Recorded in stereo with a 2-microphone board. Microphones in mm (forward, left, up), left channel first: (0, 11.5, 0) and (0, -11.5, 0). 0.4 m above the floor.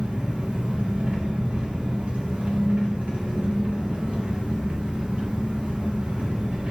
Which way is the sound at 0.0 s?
75° right (ahead or behind).